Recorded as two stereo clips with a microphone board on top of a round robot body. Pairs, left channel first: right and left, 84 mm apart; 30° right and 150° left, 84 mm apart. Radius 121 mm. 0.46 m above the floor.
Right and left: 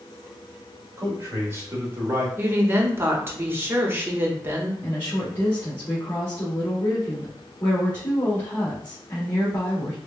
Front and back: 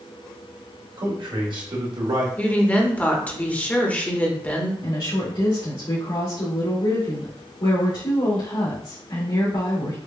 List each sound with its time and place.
1.0 s a man speaking: 140° left, 1.9 m; by 2.3 s 150° left, 1.4 m
2.4 s a woman speaking: 35° left, 1.2 m
4.8 s a woman speaking: 20° right, 2.0 m